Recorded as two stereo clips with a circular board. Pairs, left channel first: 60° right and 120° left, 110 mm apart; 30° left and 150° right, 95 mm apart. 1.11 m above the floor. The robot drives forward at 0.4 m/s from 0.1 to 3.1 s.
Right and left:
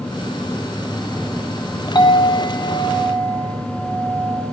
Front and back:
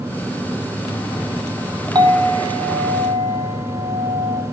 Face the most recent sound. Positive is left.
turn(degrees=-130)